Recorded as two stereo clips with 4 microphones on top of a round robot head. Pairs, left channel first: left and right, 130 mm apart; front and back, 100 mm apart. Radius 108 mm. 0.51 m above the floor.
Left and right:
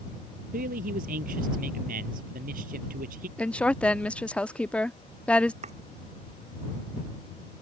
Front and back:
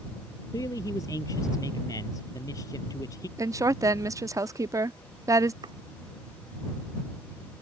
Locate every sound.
0.5 s a man speaking: 70° right
3.4 s a woman speaking: 165° left
5.6 s chopping: 125° right